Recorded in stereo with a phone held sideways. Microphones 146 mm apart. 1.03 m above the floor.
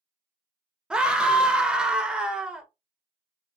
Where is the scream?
5° right (ahead or behind), 0.6 m.